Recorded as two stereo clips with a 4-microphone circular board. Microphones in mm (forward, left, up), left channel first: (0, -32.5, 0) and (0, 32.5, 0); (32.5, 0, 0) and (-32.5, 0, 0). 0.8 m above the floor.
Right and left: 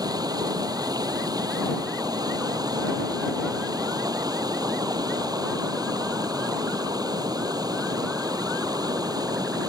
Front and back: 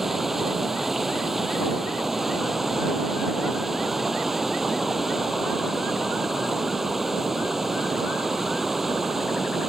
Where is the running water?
95° left.